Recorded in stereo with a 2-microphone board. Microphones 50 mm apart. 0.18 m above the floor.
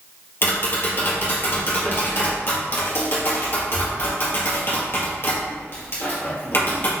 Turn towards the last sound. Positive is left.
turn(degrees=50)  # may be behind; listen again after turning